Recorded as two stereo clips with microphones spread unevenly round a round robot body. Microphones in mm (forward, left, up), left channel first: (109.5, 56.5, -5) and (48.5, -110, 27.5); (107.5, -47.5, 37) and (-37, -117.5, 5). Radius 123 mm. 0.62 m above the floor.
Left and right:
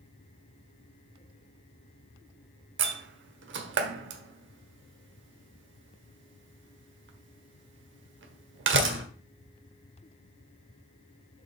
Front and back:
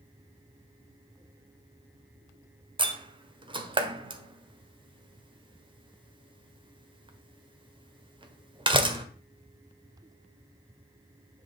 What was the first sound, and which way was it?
A door slam, 95° right.